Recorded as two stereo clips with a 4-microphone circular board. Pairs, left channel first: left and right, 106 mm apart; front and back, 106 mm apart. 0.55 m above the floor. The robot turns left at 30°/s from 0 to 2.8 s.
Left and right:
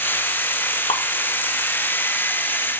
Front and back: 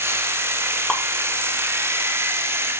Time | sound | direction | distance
0.9 | dripping | 85° left | 0.8 m